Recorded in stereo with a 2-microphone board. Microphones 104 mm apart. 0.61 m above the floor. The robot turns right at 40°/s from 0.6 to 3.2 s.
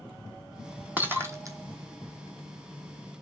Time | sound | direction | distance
1.0 | breaking glass | 15° right (ahead or behind) | 1.0 m